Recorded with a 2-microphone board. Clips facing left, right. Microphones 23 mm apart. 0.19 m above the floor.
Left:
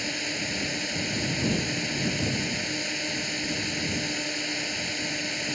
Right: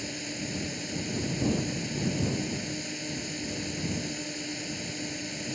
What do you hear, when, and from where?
0.0 s a drone: 30° left (ahead or behind)